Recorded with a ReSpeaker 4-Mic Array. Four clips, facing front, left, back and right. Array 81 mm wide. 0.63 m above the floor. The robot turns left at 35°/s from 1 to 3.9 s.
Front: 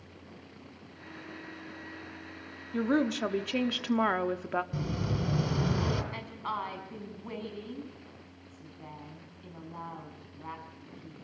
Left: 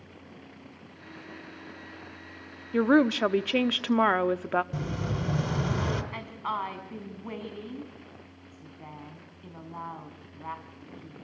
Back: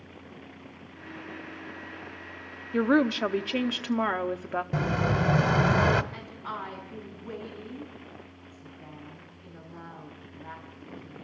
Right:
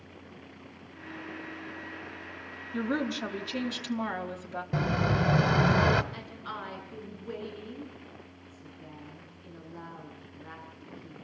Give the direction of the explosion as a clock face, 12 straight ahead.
5 o'clock.